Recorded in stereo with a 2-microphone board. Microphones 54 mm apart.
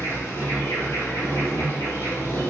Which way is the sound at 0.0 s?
55° left (ahead or behind).